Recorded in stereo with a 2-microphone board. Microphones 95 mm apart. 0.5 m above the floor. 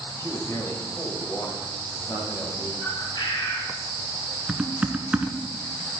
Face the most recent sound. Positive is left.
turn(degrees=-15)  # may be behind; listen again after turning